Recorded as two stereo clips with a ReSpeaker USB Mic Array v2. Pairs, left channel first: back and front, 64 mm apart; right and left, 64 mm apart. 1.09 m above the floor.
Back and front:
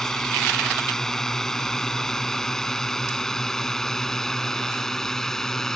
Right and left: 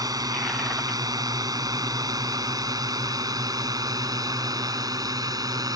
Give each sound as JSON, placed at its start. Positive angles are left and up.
{"t": 0.0, "sound": "a drone", "azimuth_deg": 95}